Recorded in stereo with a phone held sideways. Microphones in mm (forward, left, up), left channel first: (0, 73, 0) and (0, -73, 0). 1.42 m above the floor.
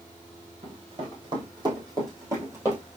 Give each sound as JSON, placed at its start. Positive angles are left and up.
{"t": 0.6, "sound": "running footsteps", "side_deg": -40, "distance_m": 2.5}